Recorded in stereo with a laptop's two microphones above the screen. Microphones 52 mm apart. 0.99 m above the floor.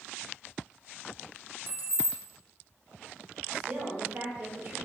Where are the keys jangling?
40° right (ahead or behind), 0.6 m.